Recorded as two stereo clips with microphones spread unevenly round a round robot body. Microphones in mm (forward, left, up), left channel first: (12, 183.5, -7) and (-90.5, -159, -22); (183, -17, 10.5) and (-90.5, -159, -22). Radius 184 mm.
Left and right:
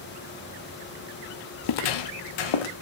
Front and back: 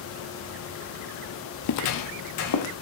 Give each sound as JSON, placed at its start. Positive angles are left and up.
{"t": 1.6, "sound": "footsteps", "azimuth_deg": 55, "distance_m": 0.6}